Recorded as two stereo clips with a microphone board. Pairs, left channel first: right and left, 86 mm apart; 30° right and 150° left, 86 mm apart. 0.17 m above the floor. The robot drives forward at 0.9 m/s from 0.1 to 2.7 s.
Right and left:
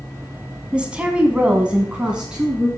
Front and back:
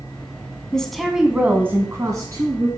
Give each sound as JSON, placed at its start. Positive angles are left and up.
{"t": 0.7, "sound": "a woman speaking", "azimuth_deg": 35, "distance_m": 1.3}